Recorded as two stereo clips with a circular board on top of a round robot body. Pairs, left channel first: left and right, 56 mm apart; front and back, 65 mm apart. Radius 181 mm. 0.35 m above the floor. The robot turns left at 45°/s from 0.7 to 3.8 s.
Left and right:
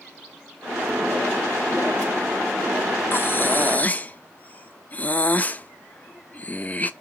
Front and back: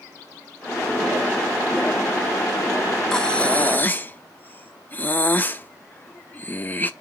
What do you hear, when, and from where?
3.1 s breathing: 75° left, 1.0 m; by 6.9 s 45° left, 1.0 m